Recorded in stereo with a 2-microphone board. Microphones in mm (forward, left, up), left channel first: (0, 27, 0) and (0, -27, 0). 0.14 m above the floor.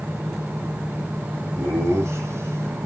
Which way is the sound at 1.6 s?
70° right (ahead or behind).